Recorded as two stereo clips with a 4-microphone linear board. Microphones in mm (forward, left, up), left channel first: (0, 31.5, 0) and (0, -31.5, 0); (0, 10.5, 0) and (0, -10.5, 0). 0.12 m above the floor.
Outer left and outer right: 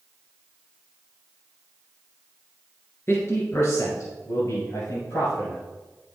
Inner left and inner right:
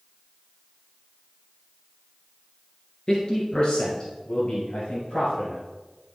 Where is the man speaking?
40° left (ahead or behind), 2.5 m; by 5.6 s 55° left (ahead or behind), 4.5 m.